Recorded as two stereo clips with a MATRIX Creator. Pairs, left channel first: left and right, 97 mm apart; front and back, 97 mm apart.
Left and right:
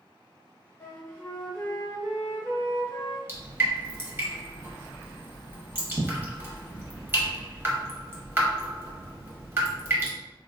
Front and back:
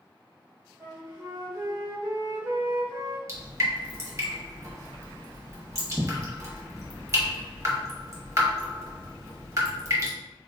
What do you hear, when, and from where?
0.8 s a flute: 135° left, 1.0 m
3.3 s dripping: 145° right, 0.9 m